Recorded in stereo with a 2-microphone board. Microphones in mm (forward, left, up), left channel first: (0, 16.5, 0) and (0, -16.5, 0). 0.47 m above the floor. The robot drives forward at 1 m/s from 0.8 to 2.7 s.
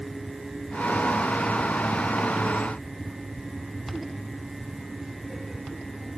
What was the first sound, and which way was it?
Only background noise.